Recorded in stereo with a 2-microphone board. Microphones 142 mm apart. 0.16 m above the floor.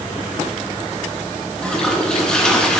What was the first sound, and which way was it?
A toilet flushing, 5° left (ahead or behind).